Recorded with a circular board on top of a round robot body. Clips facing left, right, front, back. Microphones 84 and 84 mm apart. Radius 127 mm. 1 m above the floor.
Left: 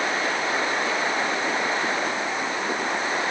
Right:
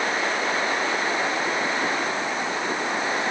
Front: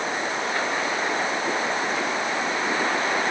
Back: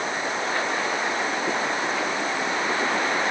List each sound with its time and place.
Only background noise.